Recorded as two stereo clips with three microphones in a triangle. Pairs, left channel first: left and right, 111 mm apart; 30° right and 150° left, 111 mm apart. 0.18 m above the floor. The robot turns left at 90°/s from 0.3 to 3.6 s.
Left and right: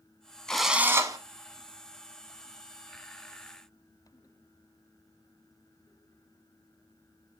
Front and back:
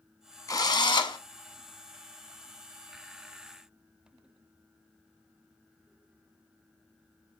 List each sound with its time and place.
0.5 s a drill: 10° left, 0.6 m; by 1.2 s 55° right, 0.6 m